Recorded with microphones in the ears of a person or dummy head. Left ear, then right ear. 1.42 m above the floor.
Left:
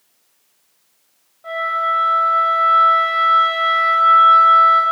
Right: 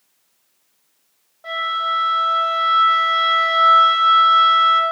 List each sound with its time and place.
1.4 s a flute: 30° right (ahead or behind), 1.2 m